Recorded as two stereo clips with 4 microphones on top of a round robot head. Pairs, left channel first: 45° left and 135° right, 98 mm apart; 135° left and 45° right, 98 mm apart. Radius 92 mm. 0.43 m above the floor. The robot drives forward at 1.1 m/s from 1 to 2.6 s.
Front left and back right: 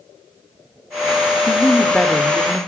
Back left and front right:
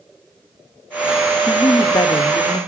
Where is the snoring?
I don't hear snoring.